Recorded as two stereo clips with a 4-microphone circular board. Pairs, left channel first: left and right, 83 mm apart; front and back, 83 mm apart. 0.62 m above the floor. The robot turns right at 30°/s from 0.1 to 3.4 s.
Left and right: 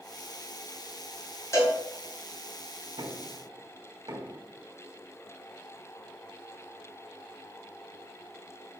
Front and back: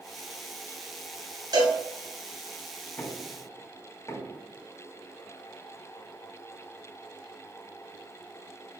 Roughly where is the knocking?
Ahead right.